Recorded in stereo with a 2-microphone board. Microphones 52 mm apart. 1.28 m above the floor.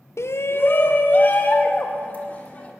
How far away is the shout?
About 0.5 m.